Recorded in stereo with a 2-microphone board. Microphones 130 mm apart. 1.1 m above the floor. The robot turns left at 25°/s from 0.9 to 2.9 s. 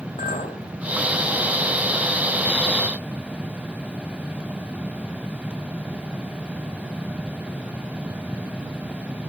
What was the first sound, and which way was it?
A clink, 70° left (ahead or behind).